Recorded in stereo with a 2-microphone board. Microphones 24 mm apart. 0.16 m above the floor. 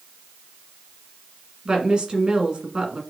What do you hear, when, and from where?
1.6 s a woman speaking: 40° right (ahead or behind), 1.6 m